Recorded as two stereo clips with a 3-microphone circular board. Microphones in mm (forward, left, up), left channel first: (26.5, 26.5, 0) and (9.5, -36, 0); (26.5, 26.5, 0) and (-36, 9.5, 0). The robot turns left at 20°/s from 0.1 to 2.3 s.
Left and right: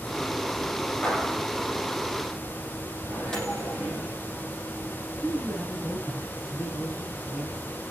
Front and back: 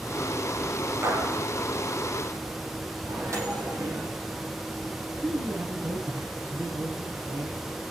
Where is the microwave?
155° left, 8 m.